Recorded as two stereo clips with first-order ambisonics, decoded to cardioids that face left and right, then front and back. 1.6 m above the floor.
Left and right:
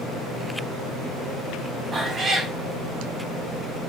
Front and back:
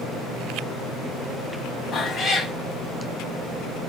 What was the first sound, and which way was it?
A cat meowing, 35° right.